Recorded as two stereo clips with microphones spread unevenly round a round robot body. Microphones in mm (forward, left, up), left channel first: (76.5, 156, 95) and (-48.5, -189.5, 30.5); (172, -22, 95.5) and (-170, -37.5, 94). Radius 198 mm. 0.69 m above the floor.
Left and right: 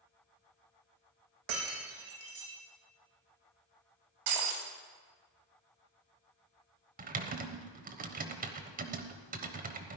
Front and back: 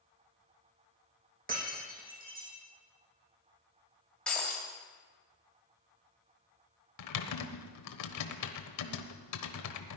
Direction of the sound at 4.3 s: 85° right.